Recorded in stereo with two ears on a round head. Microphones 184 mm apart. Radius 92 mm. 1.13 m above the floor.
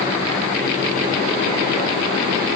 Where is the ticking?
I don't hear ticking.